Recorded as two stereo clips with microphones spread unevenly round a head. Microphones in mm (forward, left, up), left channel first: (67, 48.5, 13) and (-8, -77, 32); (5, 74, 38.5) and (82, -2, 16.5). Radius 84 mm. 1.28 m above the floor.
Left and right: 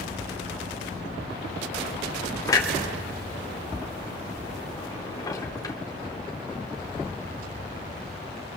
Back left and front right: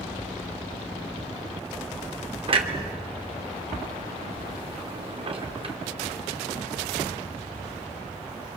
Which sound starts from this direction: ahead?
A clunk, at 2.5 s.